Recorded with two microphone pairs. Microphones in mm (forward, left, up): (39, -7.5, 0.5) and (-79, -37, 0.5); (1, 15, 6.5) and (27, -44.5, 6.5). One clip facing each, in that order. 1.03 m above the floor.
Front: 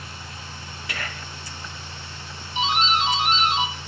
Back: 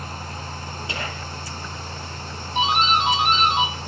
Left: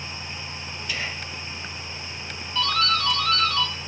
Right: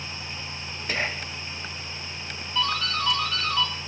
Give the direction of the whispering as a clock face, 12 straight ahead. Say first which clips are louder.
Back 1 dB, right 4 dB; 4 o'clock.